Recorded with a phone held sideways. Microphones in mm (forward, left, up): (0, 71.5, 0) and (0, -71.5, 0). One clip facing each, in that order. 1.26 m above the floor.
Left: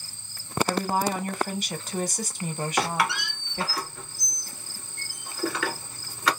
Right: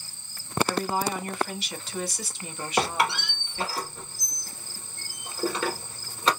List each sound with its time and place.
0.7 s a woman speaking: 45° left (ahead or behind), 1.0 m
2.8 s a squeak: 25° right (ahead or behind), 1.4 m